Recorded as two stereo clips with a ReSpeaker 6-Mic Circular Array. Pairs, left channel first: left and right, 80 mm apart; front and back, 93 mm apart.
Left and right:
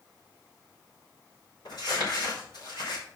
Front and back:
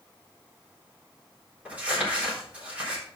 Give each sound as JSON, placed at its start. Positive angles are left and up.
{"t": 1.6, "sound": "crumpling", "azimuth_deg": 105, "distance_m": 4.0}